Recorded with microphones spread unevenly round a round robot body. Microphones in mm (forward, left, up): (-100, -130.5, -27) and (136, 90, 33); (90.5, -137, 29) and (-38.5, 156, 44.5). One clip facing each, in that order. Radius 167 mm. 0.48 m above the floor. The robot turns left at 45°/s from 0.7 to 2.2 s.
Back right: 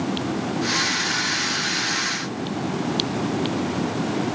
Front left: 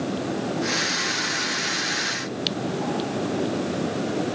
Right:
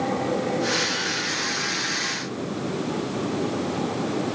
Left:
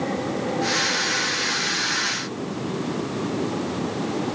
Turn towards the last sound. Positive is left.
No sound to turn to.